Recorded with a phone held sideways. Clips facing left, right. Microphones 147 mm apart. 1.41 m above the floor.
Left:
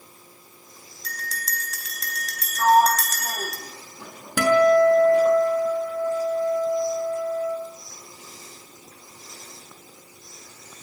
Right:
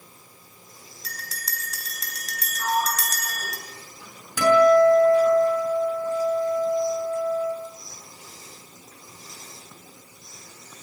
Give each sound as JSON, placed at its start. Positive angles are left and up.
{"t": 1.0, "sound": "a bell", "side_deg": -5, "distance_m": 4.0}
{"t": 2.6, "sound": "a sliding door", "side_deg": 70, "distance_m": 3.0}
{"t": 4.4, "sound": "a guitar", "side_deg": 70, "distance_m": 6.5}